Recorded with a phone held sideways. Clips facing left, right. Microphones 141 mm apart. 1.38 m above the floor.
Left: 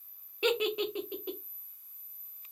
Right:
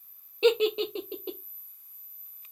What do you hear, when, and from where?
0.4 s a giggle: 25° right (ahead or behind), 0.9 m